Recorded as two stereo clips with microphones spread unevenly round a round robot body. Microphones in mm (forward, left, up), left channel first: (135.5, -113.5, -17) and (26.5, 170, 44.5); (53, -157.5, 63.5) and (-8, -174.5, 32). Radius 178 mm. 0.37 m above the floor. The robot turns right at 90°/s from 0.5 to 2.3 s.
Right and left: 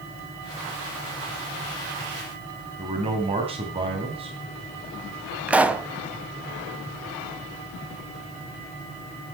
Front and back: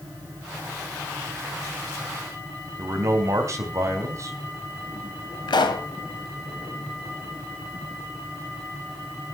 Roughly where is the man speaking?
Behind.